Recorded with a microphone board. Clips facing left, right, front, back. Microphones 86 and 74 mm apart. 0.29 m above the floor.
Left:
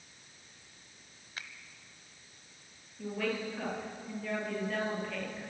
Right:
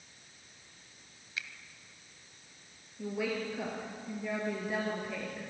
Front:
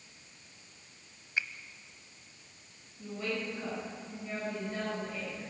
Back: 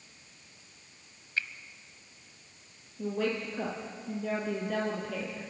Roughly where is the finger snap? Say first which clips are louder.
Right 3 dB, even; ahead left.